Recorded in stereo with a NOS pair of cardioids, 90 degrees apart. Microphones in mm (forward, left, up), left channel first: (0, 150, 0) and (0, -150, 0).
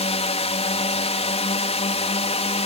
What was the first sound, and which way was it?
A drone, 20° left.